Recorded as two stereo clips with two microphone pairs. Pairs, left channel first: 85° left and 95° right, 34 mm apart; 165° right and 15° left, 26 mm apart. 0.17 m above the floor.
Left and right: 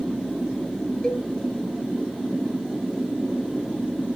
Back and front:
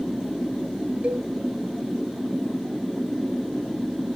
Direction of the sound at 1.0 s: 20° left.